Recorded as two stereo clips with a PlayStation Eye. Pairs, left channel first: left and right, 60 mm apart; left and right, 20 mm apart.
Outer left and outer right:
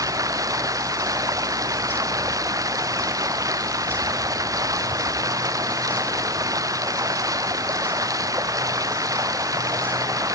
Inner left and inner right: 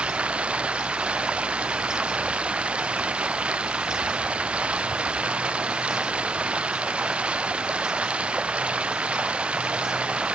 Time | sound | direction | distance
0.0 | running water | 75° right (ahead or behind) | ?